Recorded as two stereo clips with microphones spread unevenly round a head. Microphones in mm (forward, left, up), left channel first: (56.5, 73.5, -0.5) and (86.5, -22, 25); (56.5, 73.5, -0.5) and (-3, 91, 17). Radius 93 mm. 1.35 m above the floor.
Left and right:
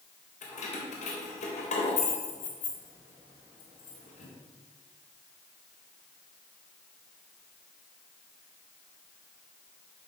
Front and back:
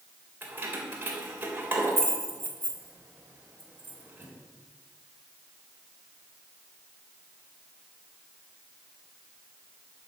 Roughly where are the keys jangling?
Behind left.